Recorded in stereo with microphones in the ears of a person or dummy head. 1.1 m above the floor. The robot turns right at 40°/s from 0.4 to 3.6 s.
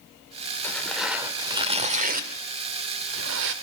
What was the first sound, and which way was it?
Tearing paper, 10° left (ahead or behind).